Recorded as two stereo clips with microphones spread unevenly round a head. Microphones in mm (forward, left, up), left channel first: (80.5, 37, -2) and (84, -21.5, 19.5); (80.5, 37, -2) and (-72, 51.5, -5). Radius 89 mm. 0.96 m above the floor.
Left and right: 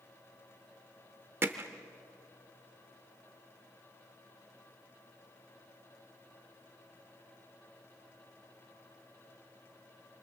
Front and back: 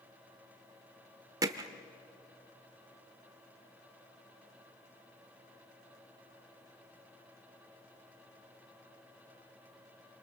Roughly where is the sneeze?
No sneeze in this recording.